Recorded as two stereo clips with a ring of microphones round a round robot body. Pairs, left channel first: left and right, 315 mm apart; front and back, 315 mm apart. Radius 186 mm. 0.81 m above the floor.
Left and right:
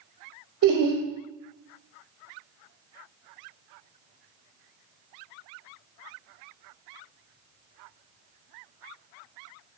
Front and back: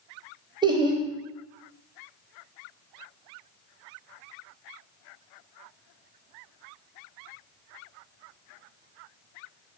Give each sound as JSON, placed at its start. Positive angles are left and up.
{"t": 0.6, "sound": "laughter", "azimuth_deg": -105, "distance_m": 0.7}